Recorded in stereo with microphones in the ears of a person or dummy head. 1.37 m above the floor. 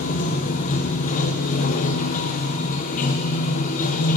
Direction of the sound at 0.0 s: 40° left (ahead or behind).